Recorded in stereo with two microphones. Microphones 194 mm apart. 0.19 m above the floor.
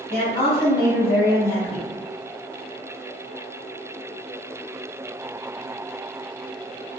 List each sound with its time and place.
0.1 s a woman speaking: 25° left (ahead or behind), 1.1 m